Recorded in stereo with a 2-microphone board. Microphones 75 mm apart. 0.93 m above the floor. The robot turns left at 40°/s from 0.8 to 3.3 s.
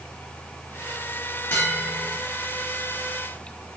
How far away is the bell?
About 1.4 m.